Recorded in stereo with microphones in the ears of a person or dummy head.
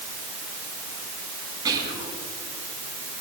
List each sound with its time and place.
1.6 s whispering: 20° right (ahead or behind), 8 m